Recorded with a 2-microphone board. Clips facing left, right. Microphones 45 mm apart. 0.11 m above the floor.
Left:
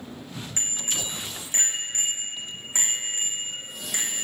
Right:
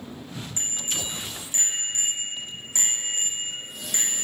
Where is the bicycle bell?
50° left (ahead or behind), 4.5 m; by 4.2 s 15° left (ahead or behind), 5 m.